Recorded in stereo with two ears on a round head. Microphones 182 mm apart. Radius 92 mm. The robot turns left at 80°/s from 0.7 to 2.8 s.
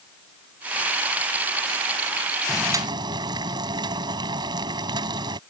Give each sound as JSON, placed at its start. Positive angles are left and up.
{"t": 2.5, "sound": "boiling", "side_deg": 5}